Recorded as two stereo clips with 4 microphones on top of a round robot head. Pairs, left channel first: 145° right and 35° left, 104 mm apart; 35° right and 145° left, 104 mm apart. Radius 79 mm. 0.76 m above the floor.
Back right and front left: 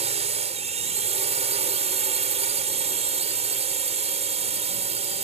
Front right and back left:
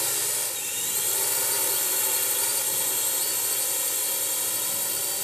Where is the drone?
55° left.